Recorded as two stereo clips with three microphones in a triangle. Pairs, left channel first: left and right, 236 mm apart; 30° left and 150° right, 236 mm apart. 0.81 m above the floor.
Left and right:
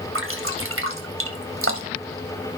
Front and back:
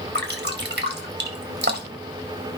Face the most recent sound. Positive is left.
turn(degrees=-110)